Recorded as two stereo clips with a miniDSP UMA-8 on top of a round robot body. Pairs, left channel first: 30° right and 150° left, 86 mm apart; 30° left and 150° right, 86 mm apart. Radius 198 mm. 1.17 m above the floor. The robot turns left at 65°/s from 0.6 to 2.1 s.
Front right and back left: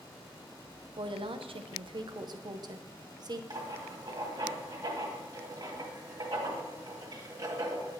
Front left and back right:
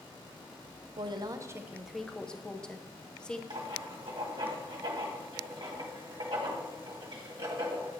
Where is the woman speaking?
175° right, 0.7 m; by 3.4 s 110° left, 0.7 m.